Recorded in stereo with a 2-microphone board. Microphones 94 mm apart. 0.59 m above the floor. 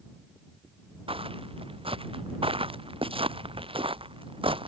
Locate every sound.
1.1 s footsteps: 85° right; by 4.7 s 75° right (ahead or behind)